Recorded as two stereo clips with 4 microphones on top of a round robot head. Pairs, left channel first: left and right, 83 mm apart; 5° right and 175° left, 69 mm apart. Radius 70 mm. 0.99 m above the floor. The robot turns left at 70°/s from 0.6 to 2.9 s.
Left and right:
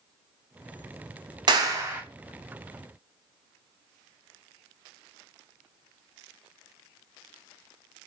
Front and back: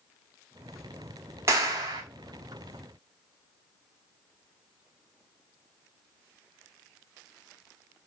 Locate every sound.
1.5 s a clap: 120° right, 2 m; by 2.0 s 160° right, 2 m